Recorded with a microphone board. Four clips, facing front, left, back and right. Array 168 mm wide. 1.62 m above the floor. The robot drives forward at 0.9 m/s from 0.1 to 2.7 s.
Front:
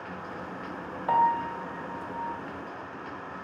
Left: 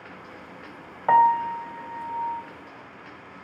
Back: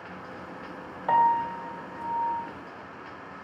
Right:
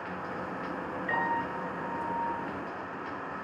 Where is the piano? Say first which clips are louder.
Left 14 dB, back 2 dB; 90° left, 3 m; by 2.4 s 115° left, 3 m.